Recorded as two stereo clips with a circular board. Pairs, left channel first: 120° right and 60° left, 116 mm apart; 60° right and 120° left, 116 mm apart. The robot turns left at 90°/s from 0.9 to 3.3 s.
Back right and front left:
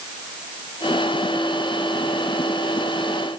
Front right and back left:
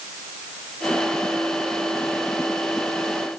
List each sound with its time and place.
Only background noise.